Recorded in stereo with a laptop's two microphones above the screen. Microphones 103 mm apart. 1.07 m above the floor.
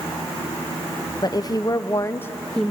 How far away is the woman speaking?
About 0.9 m.